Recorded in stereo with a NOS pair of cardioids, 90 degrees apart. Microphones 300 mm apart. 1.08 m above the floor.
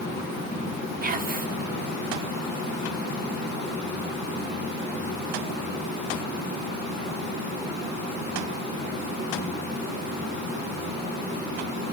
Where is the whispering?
30° right, 0.8 m.